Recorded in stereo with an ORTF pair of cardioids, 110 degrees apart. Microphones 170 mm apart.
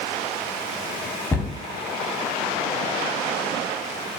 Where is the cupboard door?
15° left, 0.6 m.